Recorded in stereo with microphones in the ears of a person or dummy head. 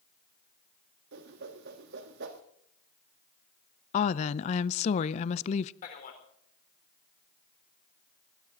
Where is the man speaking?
45° left (ahead or behind), 3.5 m.